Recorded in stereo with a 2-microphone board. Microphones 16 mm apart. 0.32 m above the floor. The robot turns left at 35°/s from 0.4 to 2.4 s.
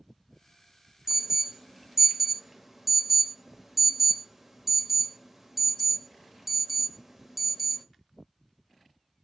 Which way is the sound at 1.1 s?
25° right (ahead or behind).